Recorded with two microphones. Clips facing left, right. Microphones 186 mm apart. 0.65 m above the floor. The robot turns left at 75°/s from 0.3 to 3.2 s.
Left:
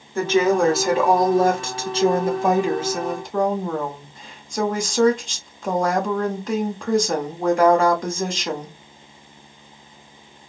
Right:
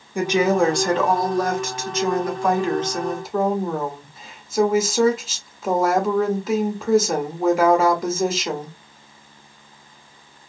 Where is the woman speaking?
150° right, 1.0 m; by 8.8 s 10° right, 1.0 m.